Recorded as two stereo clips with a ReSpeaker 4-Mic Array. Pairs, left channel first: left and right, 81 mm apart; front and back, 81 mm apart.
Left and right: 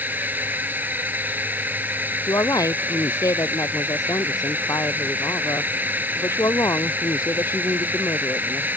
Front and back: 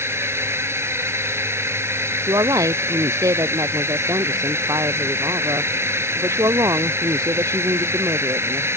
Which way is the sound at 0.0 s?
145° right.